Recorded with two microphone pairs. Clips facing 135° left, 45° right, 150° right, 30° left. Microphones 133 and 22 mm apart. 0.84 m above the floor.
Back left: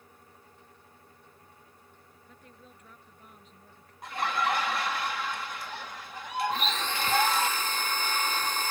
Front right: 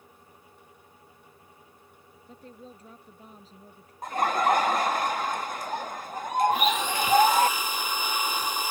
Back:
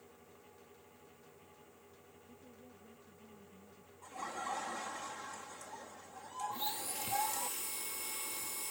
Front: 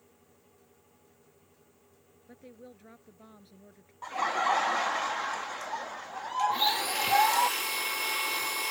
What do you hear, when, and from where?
2.3 s a woman speaking: 15° left
4.0 s laughter: 5° left
6.5 s a blender: 35° left